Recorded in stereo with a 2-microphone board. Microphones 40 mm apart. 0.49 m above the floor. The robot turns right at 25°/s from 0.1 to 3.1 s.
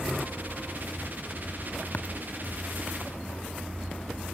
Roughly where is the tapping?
Left.